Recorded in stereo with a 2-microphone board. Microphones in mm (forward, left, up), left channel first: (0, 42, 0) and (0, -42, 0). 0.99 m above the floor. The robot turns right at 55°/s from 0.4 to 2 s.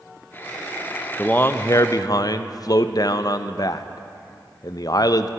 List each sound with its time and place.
1.2 s a man speaking: 20° left, 0.5 m; by 5.3 s 65° left, 0.5 m